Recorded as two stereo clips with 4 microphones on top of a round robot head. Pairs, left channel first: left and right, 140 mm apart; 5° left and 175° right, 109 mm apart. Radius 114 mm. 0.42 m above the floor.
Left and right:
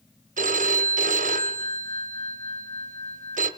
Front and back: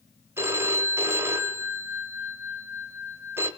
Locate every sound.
0.4 s a phone ringing: 105° right, 1.7 m